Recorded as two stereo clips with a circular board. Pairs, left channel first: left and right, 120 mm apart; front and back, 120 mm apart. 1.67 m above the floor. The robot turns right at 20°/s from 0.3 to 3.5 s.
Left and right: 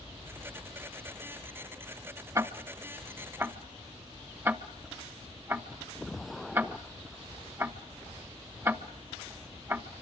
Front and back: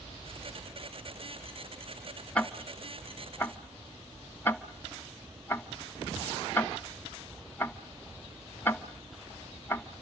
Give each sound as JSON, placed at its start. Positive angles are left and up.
{"t": 2.4, "sound": "ticking", "azimuth_deg": -70, "distance_m": 0.9}